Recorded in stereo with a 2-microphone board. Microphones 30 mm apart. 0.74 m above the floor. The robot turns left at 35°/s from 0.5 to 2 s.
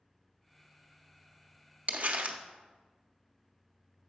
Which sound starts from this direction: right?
Crumpling, at 1.9 s.